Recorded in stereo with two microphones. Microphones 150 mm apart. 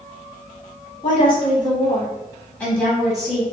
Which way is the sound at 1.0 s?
40° left (ahead or behind).